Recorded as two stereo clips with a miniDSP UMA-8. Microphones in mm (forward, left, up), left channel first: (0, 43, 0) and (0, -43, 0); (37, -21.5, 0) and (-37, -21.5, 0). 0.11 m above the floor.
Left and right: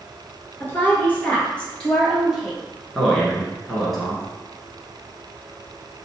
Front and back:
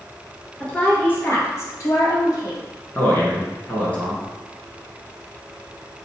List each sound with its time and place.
0.6 s a woman speaking: 60° left, 1.2 m; by 2.6 s 5° left, 2.0 m
3.0 s a man speaking: 5° left, 1.4 m